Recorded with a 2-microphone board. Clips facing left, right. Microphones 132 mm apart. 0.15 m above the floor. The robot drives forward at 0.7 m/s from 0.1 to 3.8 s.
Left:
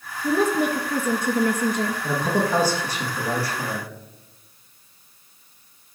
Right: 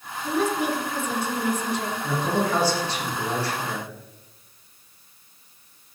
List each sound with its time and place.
0.2 s a woman speaking: 40° left (ahead or behind), 2.5 m; by 2.0 s 45° left (ahead or behind), 2 m
2.0 s a man speaking: 15° left (ahead or behind), 7.5 m; by 3.9 s 10° left (ahead or behind), 8.5 m